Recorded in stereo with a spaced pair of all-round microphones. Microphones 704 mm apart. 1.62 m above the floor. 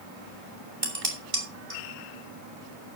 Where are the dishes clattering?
50° right (ahead or behind), 3 m.